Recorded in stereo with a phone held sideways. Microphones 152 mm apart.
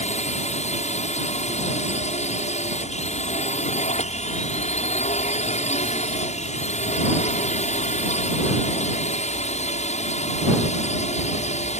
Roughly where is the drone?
Left.